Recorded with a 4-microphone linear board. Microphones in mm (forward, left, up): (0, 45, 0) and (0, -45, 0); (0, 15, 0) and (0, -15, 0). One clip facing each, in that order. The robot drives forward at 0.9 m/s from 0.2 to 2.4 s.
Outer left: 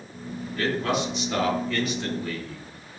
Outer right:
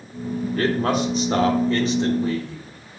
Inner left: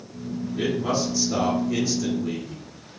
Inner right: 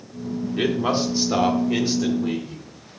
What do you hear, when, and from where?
0.6 s a man speaking: 50° right (ahead or behind), 1.6 m; by 2.6 s 30° right (ahead or behind), 2.5 m